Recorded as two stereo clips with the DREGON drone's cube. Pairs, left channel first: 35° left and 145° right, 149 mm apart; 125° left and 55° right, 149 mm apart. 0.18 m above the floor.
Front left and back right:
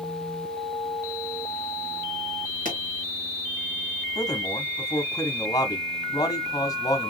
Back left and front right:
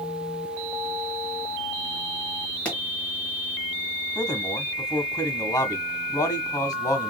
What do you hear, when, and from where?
2.6 s a pop: 155° right, 2.5 m
4.2 s a man speaking: 80° left, 1.3 m